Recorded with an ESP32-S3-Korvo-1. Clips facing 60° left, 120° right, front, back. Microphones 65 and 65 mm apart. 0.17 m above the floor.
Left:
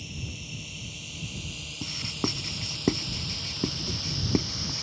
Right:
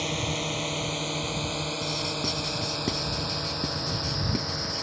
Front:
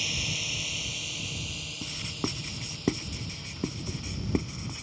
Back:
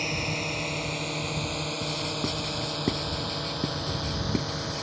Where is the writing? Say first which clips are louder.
Right 2 dB, back 5 dB; 70° left.